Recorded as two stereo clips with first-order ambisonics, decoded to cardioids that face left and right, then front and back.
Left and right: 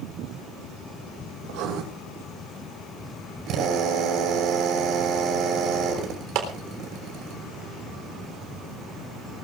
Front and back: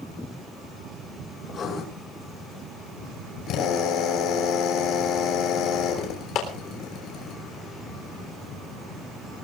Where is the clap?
50° right, 3.5 m.